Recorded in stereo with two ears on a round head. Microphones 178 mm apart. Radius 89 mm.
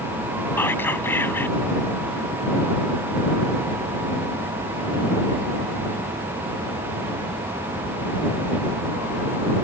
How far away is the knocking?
I don't hear knocking.